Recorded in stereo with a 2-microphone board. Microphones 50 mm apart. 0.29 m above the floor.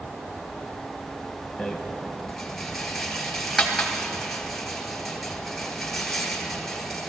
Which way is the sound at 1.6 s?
Centre (ahead or behind).